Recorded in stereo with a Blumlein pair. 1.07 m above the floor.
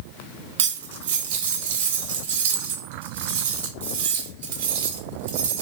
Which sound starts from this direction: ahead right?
Cutlery clinking, at 0.6 s.